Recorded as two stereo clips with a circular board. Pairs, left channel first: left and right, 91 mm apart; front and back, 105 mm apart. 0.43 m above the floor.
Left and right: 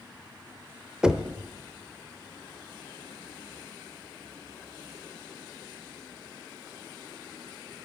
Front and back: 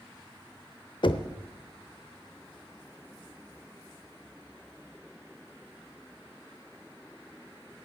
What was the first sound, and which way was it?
Knocking, 10° right.